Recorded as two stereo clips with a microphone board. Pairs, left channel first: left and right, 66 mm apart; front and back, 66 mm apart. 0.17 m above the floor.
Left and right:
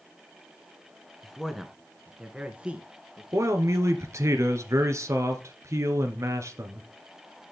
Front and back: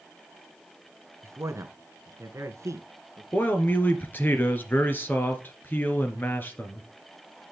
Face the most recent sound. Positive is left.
turn(degrees=-55)